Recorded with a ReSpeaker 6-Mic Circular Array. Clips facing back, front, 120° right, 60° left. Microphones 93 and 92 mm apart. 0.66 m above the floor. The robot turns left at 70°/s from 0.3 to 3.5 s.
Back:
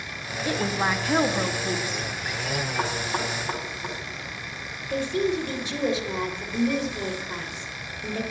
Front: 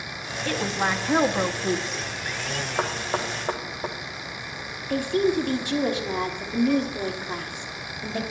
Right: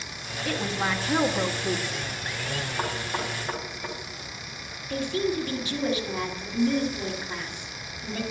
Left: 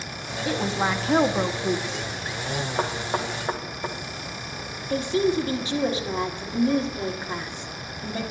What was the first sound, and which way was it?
A woman speaking, 120° left.